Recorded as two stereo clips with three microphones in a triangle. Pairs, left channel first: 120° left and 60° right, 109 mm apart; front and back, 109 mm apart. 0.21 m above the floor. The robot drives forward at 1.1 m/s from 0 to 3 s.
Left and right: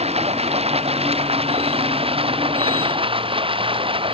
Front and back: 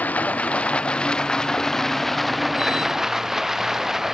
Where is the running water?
75° right; by 4.2 s 95° right.